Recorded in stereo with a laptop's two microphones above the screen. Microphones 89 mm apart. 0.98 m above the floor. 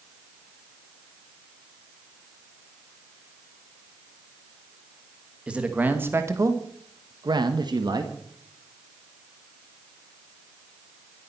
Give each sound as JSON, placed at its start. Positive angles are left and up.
{"t": 5.5, "sound": "a man speaking", "side_deg": -10, "distance_m": 1.7}